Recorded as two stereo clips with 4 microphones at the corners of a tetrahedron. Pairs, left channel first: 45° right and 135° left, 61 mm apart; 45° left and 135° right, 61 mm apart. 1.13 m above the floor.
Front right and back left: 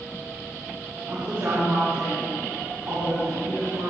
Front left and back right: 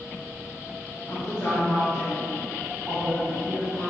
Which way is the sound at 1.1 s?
100° left.